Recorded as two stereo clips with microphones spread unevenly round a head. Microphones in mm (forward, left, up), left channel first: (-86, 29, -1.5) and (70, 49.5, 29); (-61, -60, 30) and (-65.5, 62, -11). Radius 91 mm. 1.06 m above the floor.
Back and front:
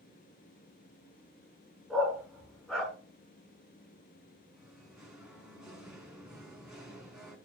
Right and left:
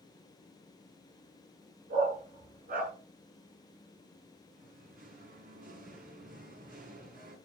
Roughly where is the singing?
Left.